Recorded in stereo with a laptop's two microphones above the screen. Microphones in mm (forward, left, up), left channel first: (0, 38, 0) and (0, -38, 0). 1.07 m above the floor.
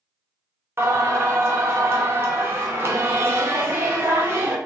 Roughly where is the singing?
Right.